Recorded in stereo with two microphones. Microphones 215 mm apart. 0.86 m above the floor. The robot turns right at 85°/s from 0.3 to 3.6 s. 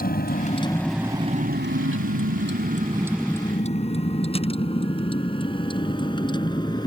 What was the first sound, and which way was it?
A vehicle, 45° left (ahead or behind).